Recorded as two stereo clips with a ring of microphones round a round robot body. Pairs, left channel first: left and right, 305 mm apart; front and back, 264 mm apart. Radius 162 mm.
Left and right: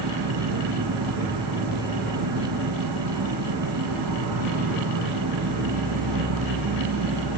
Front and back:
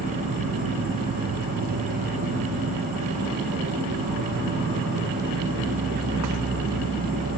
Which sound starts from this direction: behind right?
An insect, at 0.0 s.